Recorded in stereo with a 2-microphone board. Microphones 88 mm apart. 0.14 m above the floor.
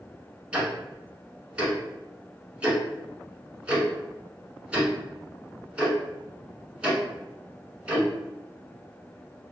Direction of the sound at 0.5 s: 15° right (ahead or behind).